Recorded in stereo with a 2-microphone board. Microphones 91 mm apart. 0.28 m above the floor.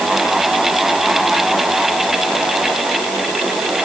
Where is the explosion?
I don't hear an explosion.